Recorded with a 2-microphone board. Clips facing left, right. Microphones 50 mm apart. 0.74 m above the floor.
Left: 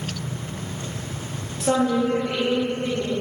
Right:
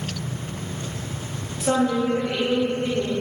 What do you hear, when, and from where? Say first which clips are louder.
1.6 s a woman speaking: left 1 dB; 5° right (ahead or behind), 1.1 m; by 3.1 s 10° right (ahead or behind), 2 m